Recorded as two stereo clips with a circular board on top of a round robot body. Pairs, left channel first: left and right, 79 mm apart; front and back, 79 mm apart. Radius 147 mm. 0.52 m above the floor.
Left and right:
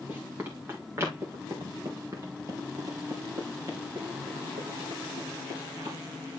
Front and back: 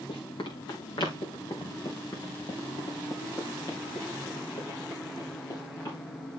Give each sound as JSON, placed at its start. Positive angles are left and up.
{"t": 0.1, "sound": "running footsteps", "azimuth_deg": -20, "distance_m": 2.5}